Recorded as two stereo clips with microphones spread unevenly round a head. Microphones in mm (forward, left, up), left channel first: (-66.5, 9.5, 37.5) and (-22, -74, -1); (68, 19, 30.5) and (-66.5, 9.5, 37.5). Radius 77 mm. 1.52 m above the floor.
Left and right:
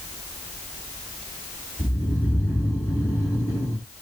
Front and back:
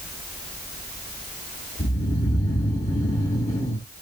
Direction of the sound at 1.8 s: 65° left.